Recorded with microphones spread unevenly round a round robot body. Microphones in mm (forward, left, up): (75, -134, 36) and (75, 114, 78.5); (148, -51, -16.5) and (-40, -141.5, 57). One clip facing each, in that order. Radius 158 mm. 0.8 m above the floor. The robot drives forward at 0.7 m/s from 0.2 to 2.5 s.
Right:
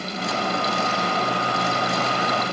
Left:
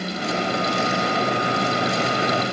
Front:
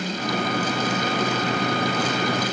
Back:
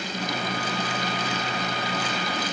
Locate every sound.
Only background noise.